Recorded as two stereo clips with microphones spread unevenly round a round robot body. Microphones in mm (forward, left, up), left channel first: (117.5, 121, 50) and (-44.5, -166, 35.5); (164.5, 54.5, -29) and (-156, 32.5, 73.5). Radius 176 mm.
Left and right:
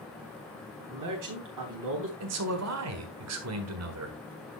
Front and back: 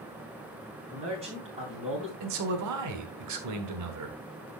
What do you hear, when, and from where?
0.9 s a man speaking: 100° right, 3.5 m
2.2 s a man speaking: 135° right, 1.6 m